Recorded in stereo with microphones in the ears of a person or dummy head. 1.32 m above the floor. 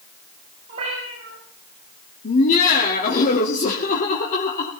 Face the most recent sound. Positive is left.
turn(degrees=45)  # may be behind; listen again after turning